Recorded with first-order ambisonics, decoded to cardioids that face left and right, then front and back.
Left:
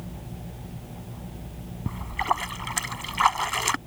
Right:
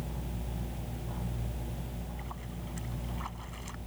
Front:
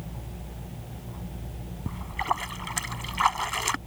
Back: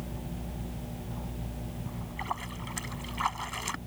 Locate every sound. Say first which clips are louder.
1.9 s a splash: left 18 dB, front 8 dB; 65° left